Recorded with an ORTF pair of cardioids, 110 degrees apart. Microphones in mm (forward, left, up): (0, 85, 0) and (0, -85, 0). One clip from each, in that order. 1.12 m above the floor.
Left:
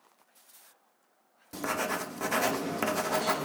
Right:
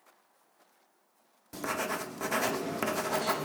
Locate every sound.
1.5 s writing: 5° left, 0.6 m